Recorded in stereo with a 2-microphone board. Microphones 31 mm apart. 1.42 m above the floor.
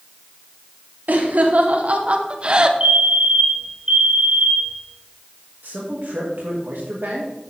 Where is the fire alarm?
40° right (ahead or behind), 3 m.